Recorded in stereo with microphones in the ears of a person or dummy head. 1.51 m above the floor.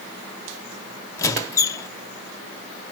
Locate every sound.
1.2 s a squeak: 15° left (ahead or behind), 0.9 m